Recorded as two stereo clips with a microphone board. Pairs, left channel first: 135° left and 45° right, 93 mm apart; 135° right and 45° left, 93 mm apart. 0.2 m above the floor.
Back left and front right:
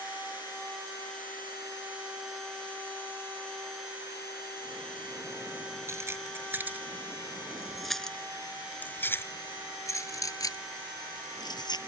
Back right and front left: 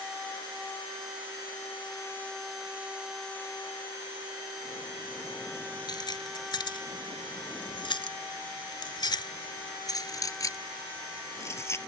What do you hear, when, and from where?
5.9 s keys jangling: 100° right; by 11.8 s 165° left